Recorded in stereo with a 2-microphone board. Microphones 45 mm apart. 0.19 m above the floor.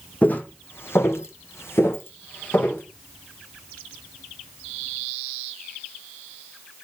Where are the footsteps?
35° left (ahead or behind), 0.6 m; by 2.8 s 50° left (ahead or behind), 1.1 m.